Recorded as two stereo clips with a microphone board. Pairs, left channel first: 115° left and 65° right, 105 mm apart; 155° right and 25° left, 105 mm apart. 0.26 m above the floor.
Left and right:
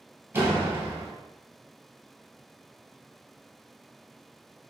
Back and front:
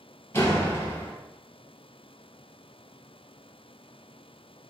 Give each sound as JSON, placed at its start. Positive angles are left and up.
{"t": 0.3, "sound": "a door slam", "azimuth_deg": -120, "distance_m": 0.9}